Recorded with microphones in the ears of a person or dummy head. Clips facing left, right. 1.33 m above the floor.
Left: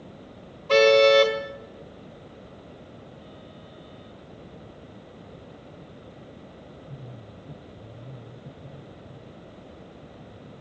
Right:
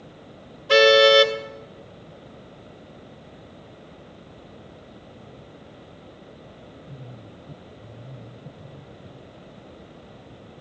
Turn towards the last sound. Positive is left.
turn(degrees=-10)  # may be behind; listen again after turning